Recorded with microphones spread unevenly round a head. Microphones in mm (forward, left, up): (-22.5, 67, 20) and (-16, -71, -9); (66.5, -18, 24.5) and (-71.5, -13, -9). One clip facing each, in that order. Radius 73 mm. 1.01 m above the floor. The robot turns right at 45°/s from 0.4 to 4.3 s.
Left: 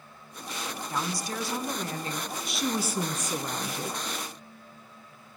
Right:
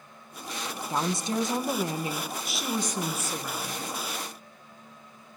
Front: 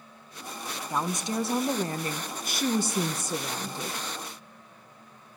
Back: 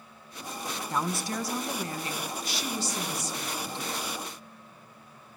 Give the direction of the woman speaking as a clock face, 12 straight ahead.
3 o'clock.